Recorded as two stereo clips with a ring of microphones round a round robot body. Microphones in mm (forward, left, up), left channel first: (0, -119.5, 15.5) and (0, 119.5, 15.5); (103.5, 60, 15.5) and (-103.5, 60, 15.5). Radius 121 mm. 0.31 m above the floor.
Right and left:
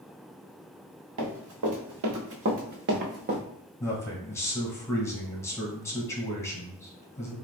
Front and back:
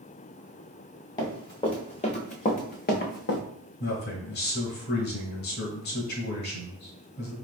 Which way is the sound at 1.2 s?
70° left.